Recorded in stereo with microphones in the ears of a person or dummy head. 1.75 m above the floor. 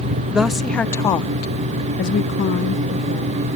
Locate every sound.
0.3 s a woman speaking: 5° right (ahead or behind); by 3.4 s 50° left (ahead or behind)